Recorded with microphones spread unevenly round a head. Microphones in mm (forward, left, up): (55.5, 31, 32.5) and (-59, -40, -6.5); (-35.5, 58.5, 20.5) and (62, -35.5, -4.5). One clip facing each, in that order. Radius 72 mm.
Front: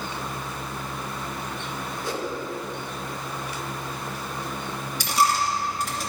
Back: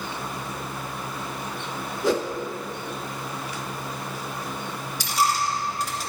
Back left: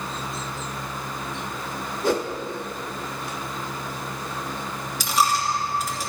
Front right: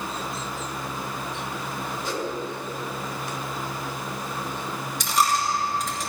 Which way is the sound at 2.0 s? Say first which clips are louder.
Back 8 dB, back left 8 dB; straight behind.